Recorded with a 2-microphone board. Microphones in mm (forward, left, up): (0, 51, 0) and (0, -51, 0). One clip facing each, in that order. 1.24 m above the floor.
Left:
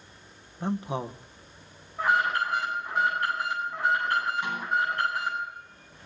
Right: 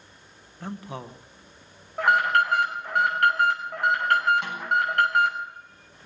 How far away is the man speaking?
About 0.9 m.